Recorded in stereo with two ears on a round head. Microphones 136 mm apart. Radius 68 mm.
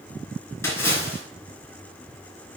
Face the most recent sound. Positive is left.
turn(degrees=20)  # may be behind; listen again after turning